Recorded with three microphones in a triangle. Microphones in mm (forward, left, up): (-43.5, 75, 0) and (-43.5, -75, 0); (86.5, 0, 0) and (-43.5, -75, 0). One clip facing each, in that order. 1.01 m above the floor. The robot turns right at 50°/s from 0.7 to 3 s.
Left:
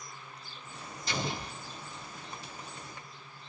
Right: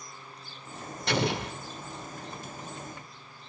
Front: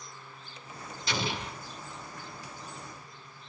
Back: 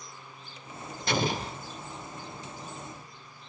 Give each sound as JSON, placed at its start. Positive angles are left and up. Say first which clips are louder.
{"t": 1.1, "sound": "an explosion", "louder": "right 8 dB, back 5 dB", "azimuth_deg": -110, "distance_m": 0.8}